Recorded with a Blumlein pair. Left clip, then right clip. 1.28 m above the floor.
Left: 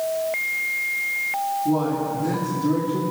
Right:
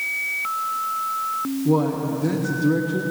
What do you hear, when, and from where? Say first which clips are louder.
1.6 s a man speaking: right 1 dB; 15° right, 1.5 m